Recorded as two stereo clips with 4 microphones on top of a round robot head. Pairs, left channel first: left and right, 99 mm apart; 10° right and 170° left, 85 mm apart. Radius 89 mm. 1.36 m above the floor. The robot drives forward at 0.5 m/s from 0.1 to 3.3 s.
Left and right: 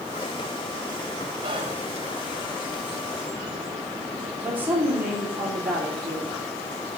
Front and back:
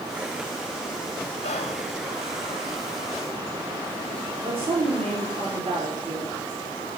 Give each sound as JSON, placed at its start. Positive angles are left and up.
{"t": 1.4, "sound": "whispering", "azimuth_deg": -35, "distance_m": 0.6}
{"t": 4.4, "sound": "a woman speaking", "azimuth_deg": -165, "distance_m": 4.0}